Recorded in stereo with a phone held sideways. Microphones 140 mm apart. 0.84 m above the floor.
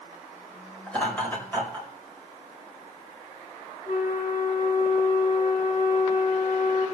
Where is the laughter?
10° left (ahead or behind), 4.5 m; by 1.9 s 15° left (ahead or behind), 5 m.